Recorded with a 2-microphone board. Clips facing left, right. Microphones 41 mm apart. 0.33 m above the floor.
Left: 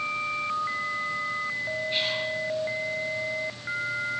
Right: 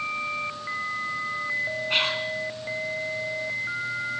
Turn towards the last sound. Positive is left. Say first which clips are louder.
# right 5 dB
turn(degrees=-65)  # may be behind; listen again after turning